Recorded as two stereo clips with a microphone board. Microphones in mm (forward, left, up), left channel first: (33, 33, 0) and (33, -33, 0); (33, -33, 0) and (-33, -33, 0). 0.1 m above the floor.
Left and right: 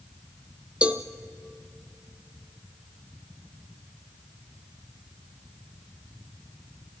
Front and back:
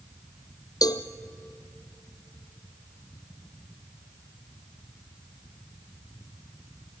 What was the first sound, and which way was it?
A cowbell, 15° right.